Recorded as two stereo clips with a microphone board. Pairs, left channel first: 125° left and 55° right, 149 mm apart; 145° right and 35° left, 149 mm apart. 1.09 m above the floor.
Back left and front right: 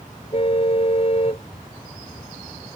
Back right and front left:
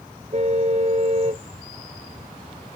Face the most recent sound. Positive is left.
turn(degrees=80)